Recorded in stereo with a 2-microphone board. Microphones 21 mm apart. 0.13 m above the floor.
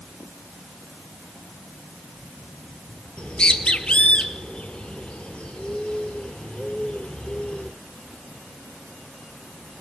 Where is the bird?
65° left (ahead or behind), 1.2 m.